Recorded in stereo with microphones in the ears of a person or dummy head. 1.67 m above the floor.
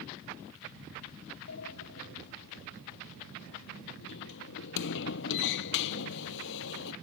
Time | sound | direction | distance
1.5 | a sliding door | 65° left (ahead or behind) | ?